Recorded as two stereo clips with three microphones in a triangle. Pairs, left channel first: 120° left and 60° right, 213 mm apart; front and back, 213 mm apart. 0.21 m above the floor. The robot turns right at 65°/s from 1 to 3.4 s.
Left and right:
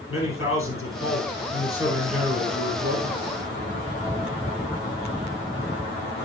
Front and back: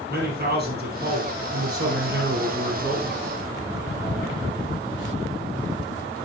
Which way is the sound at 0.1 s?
140° left.